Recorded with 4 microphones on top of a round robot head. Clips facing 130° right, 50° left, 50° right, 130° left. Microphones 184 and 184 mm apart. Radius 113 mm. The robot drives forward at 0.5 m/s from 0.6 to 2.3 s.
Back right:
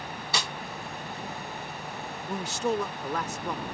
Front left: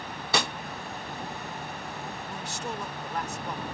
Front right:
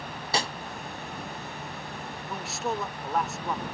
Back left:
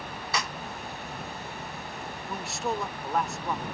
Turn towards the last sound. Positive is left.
turn(degrees=-140)